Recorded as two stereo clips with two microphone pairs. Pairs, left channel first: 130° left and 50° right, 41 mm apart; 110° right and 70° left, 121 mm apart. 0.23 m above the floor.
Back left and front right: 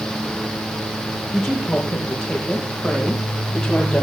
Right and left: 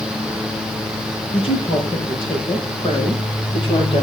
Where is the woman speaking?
150° right, 6.5 m; by 4.0 s 155° right, 8.5 m.